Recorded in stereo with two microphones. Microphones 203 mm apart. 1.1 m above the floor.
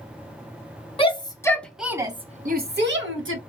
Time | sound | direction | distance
1.0 | a shout | 25° left (ahead or behind) | 1.1 m